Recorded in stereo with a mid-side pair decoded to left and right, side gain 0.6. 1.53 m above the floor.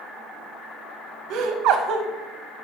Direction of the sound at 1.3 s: 65° right.